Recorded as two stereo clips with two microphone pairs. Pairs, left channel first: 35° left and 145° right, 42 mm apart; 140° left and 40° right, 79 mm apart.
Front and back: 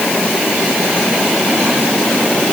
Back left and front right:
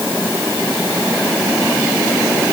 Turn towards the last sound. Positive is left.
No sound to turn to.